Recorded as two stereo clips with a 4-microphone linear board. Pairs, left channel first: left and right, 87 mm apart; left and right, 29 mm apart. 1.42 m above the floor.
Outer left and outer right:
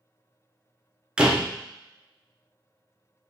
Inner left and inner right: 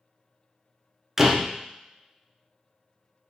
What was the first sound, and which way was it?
A door slam, 10° right (ahead or behind).